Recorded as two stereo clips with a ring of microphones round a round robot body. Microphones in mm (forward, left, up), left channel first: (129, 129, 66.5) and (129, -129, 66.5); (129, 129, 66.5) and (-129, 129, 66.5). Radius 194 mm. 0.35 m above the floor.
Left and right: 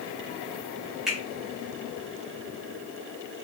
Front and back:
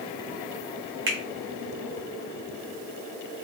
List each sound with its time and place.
1.1 s a finger snap: straight behind, 1.3 m